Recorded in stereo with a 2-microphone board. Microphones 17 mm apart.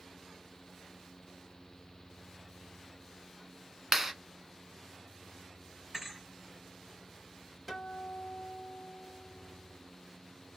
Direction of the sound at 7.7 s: 5° right (ahead or behind).